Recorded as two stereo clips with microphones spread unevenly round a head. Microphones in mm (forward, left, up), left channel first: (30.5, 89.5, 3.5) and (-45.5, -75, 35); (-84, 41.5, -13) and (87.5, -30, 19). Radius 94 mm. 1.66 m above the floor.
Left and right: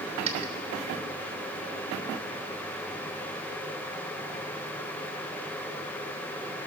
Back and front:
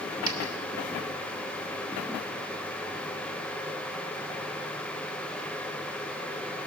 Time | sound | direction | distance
0.3 | a dropped coin | 80° right | 1.6 m